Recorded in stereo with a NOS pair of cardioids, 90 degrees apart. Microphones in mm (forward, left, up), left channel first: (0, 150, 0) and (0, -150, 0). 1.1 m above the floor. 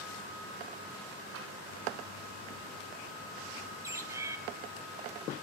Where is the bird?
10° right, 0.9 m.